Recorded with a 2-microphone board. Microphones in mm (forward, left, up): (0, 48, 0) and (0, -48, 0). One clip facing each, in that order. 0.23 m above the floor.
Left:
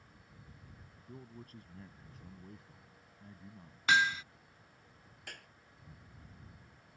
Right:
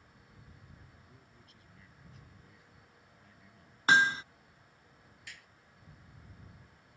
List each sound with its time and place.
1.1 s a man speaking: 45° left (ahead or behind); by 3.8 s 30° left (ahead or behind)
3.9 s hammering: 35° right (ahead or behind)
5.3 s a clap: 50° left (ahead or behind)